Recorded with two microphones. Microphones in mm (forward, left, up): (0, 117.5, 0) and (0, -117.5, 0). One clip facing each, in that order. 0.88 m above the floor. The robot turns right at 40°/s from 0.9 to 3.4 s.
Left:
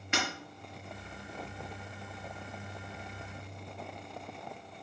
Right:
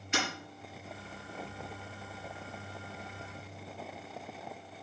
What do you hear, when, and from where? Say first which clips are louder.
0.1 s breaking glass: even; 65° left (ahead or behind), 5 m